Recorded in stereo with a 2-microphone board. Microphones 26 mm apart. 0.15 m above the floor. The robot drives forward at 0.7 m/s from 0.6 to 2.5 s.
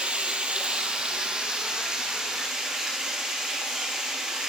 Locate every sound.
0.0 s running water: 45° right (ahead or behind), 1.3 m; by 4.5 s 20° right (ahead or behind), 2.5 m